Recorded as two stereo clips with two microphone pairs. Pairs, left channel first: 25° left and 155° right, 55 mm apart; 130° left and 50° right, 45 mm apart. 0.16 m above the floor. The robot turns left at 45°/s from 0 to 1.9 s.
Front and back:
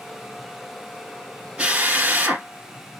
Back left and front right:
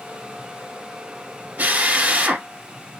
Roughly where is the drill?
Right.